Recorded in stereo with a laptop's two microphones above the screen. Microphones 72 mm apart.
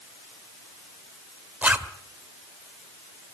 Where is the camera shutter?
No camera shutter in this recording.